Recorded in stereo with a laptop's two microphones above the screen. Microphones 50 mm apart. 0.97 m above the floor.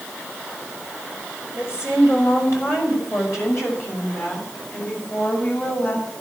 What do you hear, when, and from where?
1.5 s a woman speaking: 80° left, 5.5 m; by 6.0 s 40° left (ahead or behind), 7.5 m